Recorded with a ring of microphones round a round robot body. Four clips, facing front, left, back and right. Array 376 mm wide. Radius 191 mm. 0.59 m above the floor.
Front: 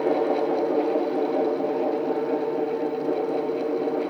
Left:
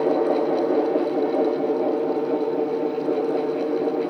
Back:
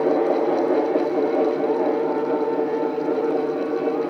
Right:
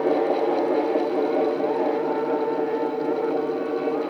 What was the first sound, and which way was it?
Only background noise.